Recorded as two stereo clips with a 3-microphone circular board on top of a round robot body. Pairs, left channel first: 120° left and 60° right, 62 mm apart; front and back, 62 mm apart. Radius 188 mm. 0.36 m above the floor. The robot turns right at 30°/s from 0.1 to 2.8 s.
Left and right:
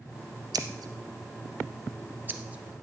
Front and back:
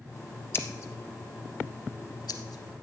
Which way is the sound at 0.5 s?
50° right.